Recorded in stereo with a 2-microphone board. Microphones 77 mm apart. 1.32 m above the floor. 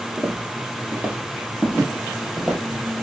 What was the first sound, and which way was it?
Footsteps, 20° right (ahead or behind).